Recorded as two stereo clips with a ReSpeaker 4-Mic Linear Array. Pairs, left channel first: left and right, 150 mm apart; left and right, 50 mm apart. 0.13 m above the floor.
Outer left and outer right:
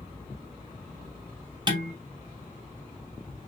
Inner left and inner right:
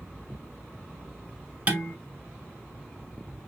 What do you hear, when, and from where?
1.7 s dishes clattering: 30° right (ahead or behind), 1.0 m